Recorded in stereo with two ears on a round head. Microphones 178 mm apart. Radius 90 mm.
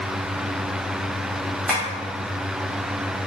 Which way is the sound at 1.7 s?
Centre (ahead or behind).